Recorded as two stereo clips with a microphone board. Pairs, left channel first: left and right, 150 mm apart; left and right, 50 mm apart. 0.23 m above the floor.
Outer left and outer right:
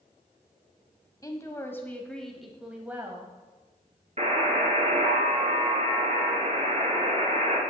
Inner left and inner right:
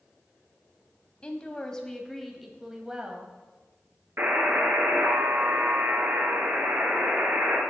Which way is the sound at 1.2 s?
25° left (ahead or behind).